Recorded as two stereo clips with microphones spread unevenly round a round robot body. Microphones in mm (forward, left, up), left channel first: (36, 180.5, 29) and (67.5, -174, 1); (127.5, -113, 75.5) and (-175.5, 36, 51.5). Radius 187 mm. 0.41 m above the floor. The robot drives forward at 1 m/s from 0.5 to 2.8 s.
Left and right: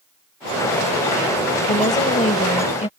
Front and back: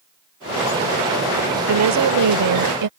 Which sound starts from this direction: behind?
A woman speaking, at 1.7 s.